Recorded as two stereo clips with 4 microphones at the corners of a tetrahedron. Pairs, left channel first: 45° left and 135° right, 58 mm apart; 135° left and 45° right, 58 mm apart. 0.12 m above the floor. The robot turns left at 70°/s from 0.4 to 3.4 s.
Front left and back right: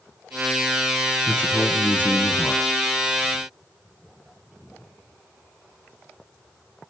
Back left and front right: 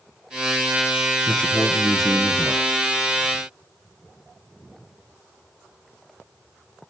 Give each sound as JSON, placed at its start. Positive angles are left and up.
{"t": 1.3, "sound": "a man speaking", "azimuth_deg": 95, "distance_m": 1.5}